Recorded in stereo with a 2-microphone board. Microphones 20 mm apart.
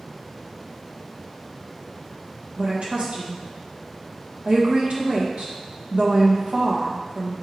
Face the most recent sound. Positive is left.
turn(degrees=-60)  # may be behind; listen again after turning